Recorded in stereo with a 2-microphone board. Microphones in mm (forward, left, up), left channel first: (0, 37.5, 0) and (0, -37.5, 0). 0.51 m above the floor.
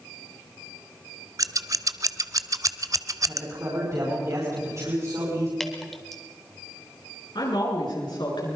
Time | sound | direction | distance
1.4 | scissors | 50° right (ahead or behind) | 0.8 m
3.3 | a man speaking | 45° right (ahead or behind) | 5.5 m
5.6 | dripping | 5° left (ahead or behind) | 2 m
7.3 | a woman speaking | 75° left (ahead or behind) | 8 m